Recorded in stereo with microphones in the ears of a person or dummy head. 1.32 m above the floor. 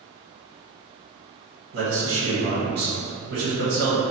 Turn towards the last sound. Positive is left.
turn(degrees=-55)  # may be behind; listen again after turning